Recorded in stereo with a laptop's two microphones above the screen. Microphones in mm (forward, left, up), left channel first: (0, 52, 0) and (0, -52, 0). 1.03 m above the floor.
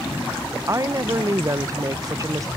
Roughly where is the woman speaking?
Right.